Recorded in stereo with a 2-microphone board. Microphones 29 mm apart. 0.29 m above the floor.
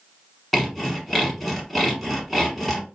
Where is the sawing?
5° left (ahead or behind), 1.1 m.